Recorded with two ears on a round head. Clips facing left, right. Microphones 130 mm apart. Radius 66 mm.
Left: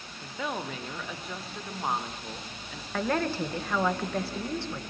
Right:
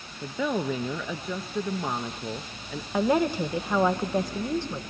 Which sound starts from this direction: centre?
A woman speaking, at 2.9 s.